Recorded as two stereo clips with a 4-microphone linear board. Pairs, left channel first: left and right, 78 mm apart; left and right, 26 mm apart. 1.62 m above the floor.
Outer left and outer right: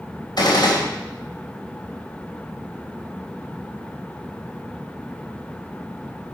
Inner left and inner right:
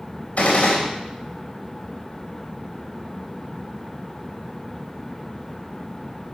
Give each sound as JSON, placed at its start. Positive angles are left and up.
{"t": 0.4, "sound": "a gunshot", "side_deg": 60, "distance_m": 3.0}